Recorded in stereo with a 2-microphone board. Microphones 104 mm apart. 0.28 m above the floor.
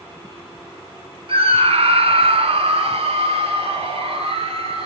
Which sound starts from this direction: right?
A scream, at 1.3 s.